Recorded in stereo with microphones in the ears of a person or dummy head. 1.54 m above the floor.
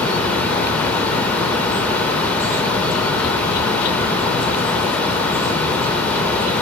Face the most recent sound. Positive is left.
turn(degrees=10)  # may be behind; listen again after turning